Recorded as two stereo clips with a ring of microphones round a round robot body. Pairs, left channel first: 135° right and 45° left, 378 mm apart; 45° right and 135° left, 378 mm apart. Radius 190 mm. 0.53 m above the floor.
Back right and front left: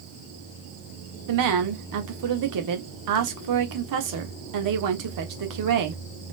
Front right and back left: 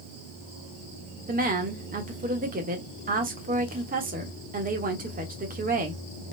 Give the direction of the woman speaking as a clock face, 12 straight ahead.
10 o'clock.